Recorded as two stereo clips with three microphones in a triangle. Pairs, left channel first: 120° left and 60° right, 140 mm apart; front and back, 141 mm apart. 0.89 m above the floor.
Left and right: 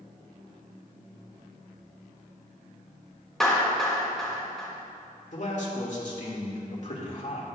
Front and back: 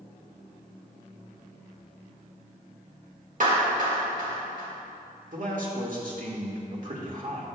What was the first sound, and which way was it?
A clap, 150° right.